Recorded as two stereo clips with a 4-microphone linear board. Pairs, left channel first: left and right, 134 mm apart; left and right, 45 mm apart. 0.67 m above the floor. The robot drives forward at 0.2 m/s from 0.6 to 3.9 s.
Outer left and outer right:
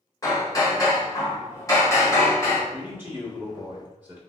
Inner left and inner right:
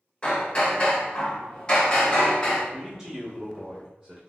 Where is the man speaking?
15° right (ahead or behind), 1.5 m.